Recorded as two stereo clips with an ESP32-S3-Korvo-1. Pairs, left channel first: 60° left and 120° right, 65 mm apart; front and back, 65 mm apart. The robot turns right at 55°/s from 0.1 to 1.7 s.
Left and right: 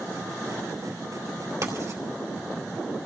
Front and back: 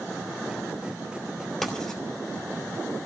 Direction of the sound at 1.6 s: 90° right.